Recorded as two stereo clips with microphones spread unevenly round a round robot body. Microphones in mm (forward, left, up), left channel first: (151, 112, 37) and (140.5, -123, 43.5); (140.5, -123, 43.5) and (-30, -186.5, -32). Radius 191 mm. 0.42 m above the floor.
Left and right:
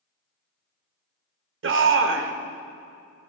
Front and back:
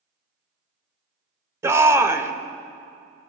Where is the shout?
105° right, 1.2 m.